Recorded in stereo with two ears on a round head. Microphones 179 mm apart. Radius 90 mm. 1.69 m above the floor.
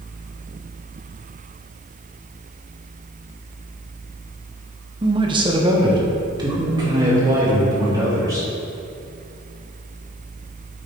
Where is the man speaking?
25° right (ahead or behind), 1.0 m; by 8.5 s 20° right (ahead or behind), 4.5 m.